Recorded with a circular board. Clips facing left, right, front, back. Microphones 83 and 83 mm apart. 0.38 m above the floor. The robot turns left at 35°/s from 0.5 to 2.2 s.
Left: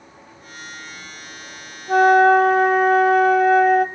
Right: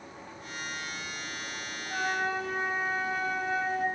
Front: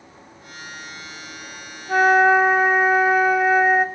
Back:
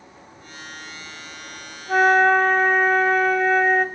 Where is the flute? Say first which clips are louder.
Left 19 dB, front 1 dB; 95° left, 1.3 m; by 3.9 s 80° left, 1.3 m.